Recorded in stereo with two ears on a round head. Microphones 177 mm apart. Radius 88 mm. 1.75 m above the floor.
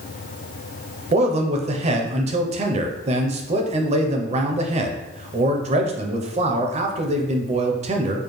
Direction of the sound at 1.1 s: 35° right (ahead or behind).